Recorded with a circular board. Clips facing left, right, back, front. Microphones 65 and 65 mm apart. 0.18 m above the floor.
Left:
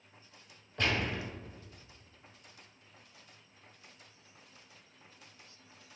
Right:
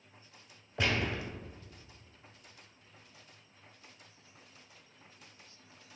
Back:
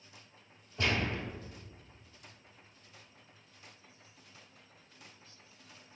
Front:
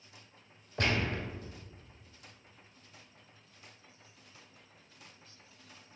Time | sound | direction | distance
0.8 | a gunshot | 10° right | 1.0 m